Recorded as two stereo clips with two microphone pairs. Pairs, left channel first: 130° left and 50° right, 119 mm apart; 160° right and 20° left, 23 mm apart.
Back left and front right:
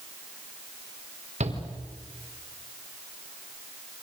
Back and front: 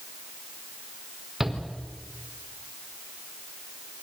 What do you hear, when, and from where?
1.4 s a shout: 45° right, 4.5 m